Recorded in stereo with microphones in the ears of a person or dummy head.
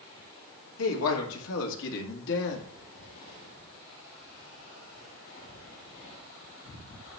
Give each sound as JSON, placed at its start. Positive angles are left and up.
{"t": 0.8, "sound": "a woman speaking", "side_deg": 85, "distance_m": 2.5}